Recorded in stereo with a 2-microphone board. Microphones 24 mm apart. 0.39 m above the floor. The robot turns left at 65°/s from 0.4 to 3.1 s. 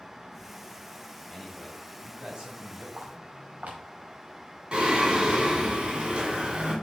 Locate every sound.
1.3 s a man speaking: 25° left, 2.5 m; by 2.9 s 75° right, 2.5 m
3.0 s footsteps: 80° right, 4 m; by 3.8 s 70° right (ahead or behind), 4 m
4.7 s singing: 40° right (ahead or behind), 2.5 m